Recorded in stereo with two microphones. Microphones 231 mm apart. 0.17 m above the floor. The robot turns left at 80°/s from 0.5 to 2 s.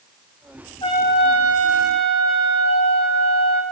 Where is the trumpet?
160° left, 3.5 m; by 3.6 s 65° left, 3.5 m.